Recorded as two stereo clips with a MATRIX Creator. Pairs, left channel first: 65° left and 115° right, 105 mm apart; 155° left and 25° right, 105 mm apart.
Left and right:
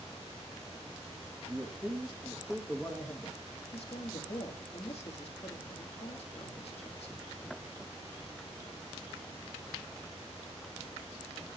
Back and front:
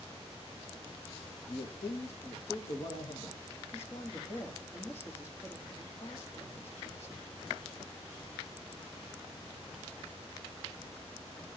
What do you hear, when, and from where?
1.5 s a man speaking: 170° left, 2 m; by 3.4 s 135° left, 2.0 m
3.7 s a woman speaking: 90° left, 2.0 m